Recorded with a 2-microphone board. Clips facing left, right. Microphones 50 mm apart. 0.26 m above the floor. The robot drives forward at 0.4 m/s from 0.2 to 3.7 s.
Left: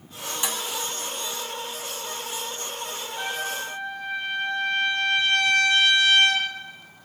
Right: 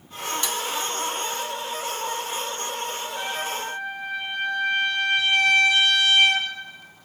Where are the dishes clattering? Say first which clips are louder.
Left 2 dB; 15° left (ahead or behind), 1.1 m.